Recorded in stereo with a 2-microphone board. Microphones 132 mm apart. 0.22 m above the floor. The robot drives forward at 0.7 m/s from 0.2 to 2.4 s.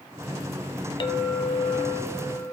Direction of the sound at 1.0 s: 40° left (ahead or behind).